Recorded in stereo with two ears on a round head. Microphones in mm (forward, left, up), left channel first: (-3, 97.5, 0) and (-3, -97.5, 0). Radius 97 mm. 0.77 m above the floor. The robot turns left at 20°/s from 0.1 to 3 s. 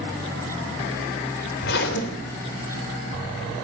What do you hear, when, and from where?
1.6 s a zipper: 50° left (ahead or behind), 3 m; by 2.6 s 70° left (ahead or behind), 3 m